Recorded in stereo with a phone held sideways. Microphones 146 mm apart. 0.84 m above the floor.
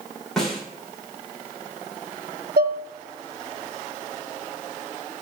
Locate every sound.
0.4 s a snare drum: 5° left (ahead or behind), 2.5 m
2.6 s dishes clattering: 80° right, 0.5 m